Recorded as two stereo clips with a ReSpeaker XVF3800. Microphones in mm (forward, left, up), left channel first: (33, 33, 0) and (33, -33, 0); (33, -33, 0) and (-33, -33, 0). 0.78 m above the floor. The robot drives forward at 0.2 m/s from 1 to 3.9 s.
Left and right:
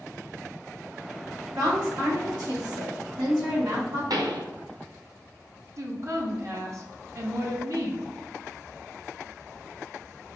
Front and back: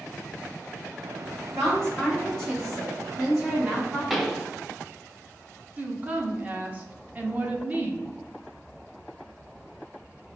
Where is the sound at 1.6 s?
85° right, 2.0 m; by 4.0 s 100° right, 2.0 m.